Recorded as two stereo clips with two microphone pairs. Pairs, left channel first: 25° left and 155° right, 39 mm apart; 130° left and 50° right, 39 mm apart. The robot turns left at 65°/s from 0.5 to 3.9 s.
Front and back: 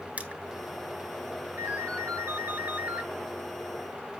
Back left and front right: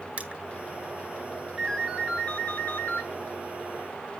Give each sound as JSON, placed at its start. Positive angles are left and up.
{"t": 0.2, "sound": "crushing", "azimuth_deg": -100, "distance_m": 1.5}
{"t": 1.6, "sound": "a ringtone", "azimuth_deg": -125, "distance_m": 8.0}